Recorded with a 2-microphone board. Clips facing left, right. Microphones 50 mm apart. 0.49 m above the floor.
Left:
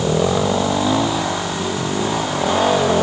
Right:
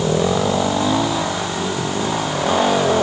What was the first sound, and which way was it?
Only background noise.